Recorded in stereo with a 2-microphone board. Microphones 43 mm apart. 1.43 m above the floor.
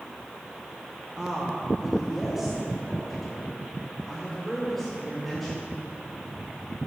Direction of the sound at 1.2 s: 15° right (ahead or behind).